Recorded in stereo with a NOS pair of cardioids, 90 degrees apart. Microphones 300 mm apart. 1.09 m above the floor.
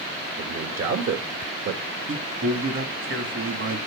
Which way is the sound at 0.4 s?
60° right.